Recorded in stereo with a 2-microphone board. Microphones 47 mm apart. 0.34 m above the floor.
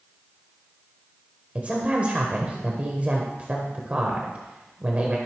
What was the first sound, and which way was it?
A woman speaking, 30° right (ahead or behind).